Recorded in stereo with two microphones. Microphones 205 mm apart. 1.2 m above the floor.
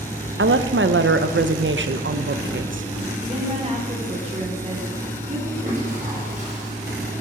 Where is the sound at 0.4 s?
80° right, 0.7 m.